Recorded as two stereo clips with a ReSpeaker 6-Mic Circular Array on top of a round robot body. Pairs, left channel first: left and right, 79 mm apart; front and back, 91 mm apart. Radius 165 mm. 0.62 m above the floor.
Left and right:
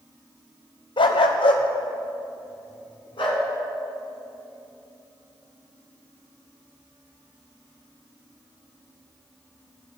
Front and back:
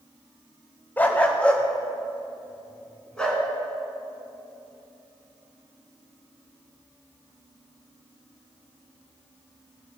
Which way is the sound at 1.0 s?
70° left.